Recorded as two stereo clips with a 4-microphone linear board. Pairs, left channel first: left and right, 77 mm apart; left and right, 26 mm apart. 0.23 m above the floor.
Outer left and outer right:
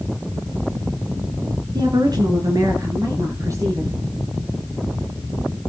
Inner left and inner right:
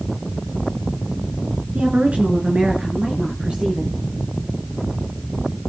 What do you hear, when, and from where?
1.8 s a woman speaking: 65° right (ahead or behind), 3 m; by 3.9 s 40° right (ahead or behind), 4.5 m